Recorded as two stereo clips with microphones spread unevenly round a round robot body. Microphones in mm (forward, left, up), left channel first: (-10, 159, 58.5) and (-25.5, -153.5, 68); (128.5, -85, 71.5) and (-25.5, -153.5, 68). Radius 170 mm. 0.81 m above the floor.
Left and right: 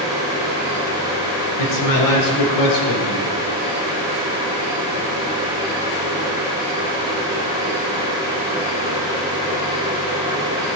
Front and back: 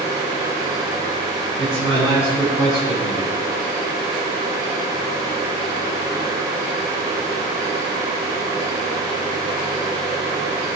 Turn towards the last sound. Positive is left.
turn(degrees=100)